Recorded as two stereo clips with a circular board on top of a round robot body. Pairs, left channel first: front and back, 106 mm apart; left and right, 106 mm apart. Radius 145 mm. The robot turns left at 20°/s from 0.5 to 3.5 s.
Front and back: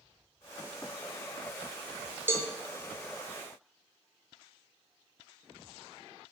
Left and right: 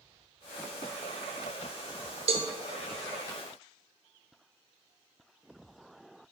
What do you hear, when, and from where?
2.3 s a cowbell: 110° right, 1.2 m; by 2.5 s 115° right, 1.2 m